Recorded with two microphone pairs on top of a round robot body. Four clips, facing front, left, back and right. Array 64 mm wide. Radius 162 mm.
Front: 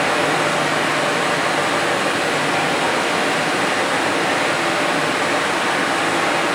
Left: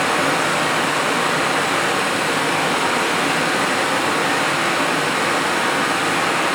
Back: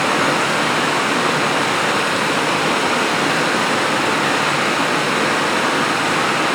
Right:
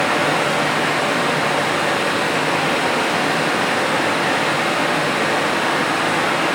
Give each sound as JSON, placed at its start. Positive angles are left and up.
{"t": 0.0, "sound": "running water", "azimuth_deg": 160, "distance_m": 0.7}